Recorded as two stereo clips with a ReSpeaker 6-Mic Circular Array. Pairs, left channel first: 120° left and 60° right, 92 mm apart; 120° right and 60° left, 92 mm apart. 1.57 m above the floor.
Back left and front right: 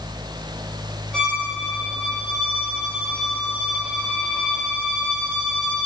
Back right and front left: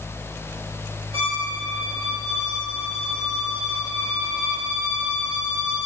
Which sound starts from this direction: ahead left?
A violin, at 1.1 s.